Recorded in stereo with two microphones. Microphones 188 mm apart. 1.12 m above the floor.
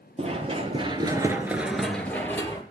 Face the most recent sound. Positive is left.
turn(degrees=15)  # may be behind; listen again after turning